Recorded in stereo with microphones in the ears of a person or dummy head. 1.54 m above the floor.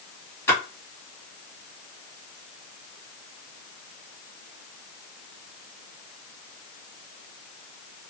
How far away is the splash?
About 1.5 m.